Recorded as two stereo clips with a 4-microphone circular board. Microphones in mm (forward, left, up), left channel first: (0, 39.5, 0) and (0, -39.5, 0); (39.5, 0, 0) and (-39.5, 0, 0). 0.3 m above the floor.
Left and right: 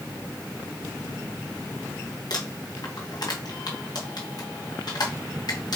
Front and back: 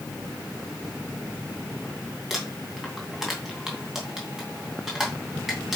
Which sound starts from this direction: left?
Crumpling, at 2.3 s.